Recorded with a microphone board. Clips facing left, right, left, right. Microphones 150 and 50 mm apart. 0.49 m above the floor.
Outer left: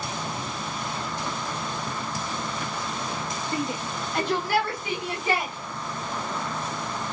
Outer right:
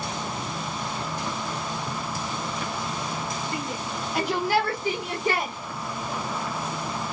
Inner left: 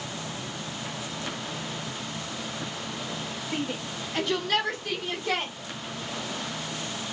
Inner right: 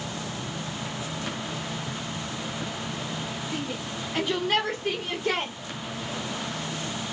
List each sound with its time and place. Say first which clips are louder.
3.5 s a shout: outer left 2 dB, even; 30° left (ahead or behind), 1.0 m; by 5.5 s 55° right (ahead or behind), 1.6 m